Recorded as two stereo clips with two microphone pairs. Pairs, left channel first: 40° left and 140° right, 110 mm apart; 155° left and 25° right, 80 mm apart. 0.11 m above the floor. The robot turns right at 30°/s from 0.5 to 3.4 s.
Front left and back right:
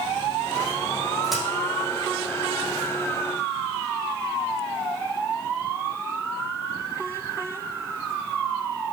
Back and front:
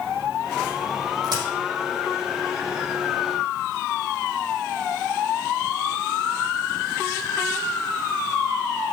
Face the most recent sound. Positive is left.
turn(degrees=15)